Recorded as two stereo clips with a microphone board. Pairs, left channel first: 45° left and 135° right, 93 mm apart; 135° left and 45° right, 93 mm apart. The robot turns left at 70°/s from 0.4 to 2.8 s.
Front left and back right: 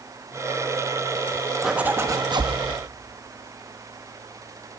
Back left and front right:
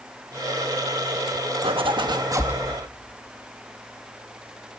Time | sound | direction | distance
1.6 | a zipper | 50° right | 0.9 m